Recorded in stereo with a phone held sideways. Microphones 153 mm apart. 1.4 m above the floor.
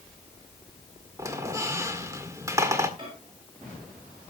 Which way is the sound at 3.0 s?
35° right (ahead or behind).